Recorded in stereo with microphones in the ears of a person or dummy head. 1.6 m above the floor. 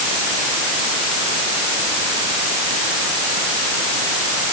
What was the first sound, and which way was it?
Only background noise.